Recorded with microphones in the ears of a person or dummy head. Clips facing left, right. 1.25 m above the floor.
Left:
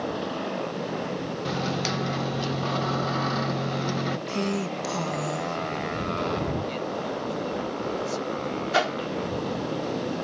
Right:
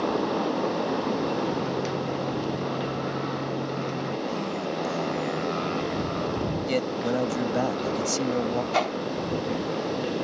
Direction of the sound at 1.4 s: 70° left (ahead or behind).